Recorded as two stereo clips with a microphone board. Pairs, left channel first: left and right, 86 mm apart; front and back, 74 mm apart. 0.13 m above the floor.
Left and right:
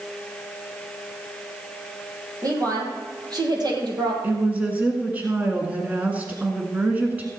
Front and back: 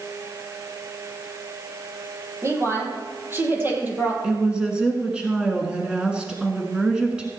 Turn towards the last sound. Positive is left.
turn(degrees=-120)